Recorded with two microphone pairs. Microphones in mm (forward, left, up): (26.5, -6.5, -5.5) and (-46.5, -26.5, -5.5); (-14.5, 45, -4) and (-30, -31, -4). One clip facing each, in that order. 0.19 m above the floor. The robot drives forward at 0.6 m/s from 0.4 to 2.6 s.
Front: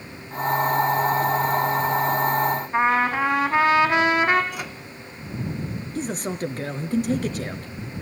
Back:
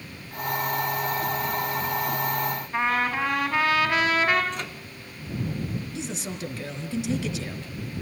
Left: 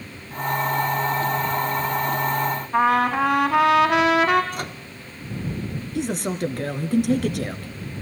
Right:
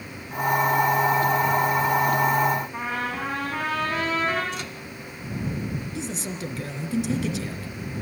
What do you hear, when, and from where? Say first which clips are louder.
2.7 s a trumpet: front 4 dB, left 11 dB; 85° left, 4.5 m
4.5 s a microwave: front 1 dB, left 3 dB; 95° left, 1.5 m
6.0 s a man speaking: front 6 dB, left 7 dB; 55° left, 2.5 m